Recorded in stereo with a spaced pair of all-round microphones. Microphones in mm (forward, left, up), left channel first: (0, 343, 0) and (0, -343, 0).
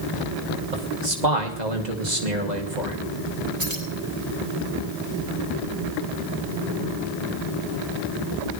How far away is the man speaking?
About 3 m.